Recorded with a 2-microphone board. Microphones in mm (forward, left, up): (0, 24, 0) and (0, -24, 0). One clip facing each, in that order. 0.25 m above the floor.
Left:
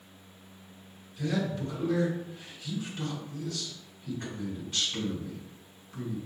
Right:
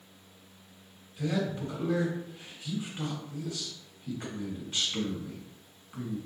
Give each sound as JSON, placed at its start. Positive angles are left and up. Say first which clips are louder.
{"t": 1.2, "sound": "a man speaking", "louder": "even", "side_deg": -20, "distance_m": 1.6}